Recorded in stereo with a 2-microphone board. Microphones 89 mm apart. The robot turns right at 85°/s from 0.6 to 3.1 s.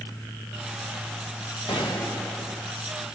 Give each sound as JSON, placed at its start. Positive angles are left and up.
{"t": 1.7, "sound": "a gunshot", "azimuth_deg": 120, "distance_m": 5.0}